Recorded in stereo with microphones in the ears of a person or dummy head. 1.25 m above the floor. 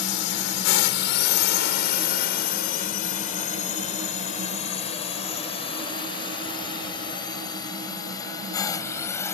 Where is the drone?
65° left (ahead or behind); by 9.3 s 15° left (ahead or behind).